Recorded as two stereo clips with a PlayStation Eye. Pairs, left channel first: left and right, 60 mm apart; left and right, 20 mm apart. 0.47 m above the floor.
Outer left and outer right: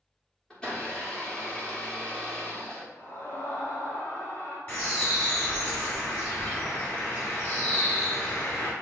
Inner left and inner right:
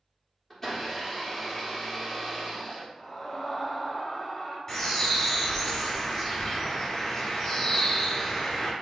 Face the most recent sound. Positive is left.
turn(degrees=30)  # may be behind; listen again after turning